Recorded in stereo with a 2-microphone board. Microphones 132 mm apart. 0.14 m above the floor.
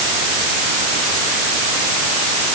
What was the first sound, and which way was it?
Only background noise.